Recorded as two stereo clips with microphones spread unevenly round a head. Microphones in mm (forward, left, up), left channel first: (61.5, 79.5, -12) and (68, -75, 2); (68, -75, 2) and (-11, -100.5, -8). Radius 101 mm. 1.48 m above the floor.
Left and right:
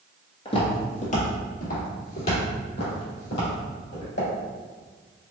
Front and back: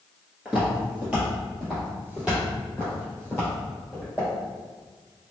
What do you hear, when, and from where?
0.5 s footsteps: 120° left, 1.6 m; by 4.3 s 110° left, 4.5 m